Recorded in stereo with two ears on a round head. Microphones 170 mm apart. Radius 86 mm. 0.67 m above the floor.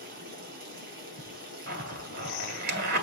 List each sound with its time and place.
0.0 s running water: 50° right (ahead or behind), 5 m
1.7 s a zipper: 55° right (ahead or behind), 2 m